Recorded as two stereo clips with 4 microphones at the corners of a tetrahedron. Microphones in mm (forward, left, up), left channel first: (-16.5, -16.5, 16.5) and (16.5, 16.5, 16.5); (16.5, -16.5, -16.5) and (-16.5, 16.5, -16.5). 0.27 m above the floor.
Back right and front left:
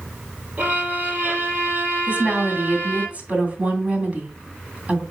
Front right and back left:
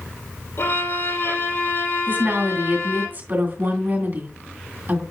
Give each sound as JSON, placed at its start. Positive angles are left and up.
{"t": 0.6, "sound": "a violin", "azimuth_deg": -10, "distance_m": 5.5}
{"t": 2.1, "sound": "a woman speaking", "azimuth_deg": 100, "distance_m": 2.5}